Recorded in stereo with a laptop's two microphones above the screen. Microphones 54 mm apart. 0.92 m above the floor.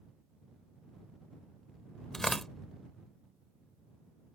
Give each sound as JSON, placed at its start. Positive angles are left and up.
{"t": 2.1, "sound": "tearing paper", "side_deg": 5}